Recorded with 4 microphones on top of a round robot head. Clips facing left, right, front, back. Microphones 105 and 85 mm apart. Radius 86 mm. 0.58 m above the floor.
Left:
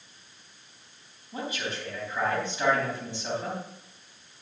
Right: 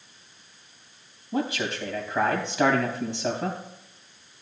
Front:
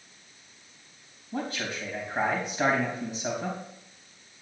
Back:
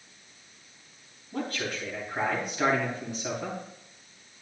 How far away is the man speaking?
About 4 m.